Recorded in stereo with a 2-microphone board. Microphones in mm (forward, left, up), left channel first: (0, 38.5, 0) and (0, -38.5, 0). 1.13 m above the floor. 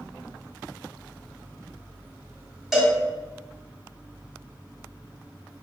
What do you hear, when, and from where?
2.7 s a cowbell: centre (ahead or behind), 1.1 m